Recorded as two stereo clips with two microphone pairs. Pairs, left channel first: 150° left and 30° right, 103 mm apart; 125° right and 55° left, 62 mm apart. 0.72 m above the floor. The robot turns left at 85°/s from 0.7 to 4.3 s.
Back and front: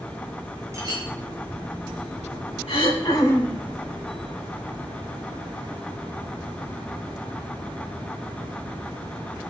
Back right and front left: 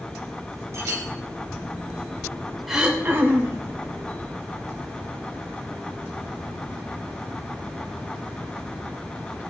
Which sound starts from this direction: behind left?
Throat clearing, at 2.7 s.